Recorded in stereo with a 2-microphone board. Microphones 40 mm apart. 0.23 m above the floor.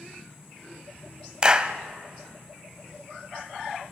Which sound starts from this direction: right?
A clap, at 1.4 s.